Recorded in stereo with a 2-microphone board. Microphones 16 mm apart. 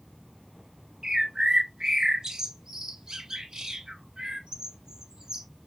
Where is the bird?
45° right (ahead or behind), 0.7 m.